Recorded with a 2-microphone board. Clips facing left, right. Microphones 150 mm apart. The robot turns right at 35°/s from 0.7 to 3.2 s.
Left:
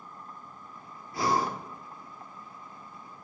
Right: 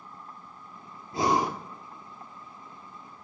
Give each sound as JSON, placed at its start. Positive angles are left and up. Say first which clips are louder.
{"t": 1.1, "sound": "breathing", "louder": "right 2 dB", "side_deg": -25, "distance_m": 1.2}